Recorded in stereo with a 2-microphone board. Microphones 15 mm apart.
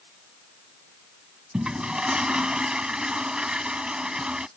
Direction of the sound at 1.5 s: 80° right.